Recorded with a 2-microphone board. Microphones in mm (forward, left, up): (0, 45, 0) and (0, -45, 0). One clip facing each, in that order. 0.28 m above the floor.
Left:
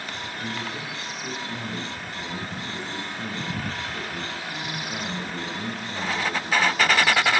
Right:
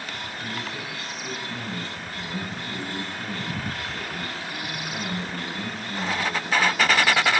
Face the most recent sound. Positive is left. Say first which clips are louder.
# left 2 dB
turn(degrees=5)  # may be behind; listen again after turning